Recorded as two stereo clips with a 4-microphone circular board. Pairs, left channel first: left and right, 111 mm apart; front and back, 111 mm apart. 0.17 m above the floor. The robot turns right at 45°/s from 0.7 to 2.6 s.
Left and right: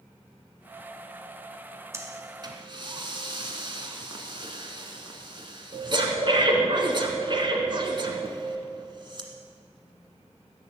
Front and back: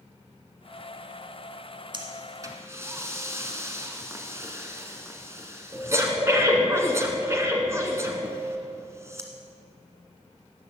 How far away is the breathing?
About 1.5 m.